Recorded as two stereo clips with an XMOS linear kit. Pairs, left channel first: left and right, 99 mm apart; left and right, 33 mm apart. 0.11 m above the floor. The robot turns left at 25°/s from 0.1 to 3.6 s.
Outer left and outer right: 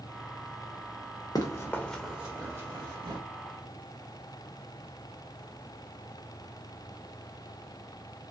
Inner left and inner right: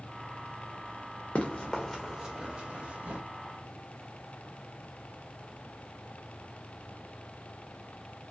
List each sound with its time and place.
1.4 s running footsteps: 45° left (ahead or behind), 0.8 m; by 3.2 s 60° right (ahead or behind), 1.4 m